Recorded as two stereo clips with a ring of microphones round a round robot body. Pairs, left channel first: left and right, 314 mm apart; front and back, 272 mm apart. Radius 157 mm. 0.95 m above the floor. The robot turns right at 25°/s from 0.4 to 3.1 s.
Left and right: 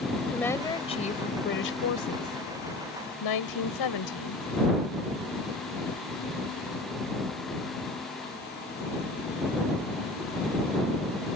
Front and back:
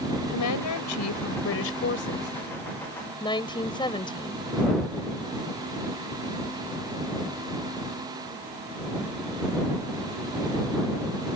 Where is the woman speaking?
5° left; by 4.4 s 75° left.